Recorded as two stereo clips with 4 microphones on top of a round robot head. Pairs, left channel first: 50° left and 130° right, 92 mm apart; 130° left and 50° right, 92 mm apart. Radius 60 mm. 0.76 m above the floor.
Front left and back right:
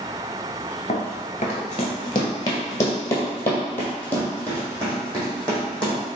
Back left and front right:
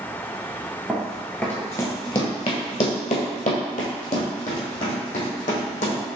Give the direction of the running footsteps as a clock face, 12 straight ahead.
11 o'clock.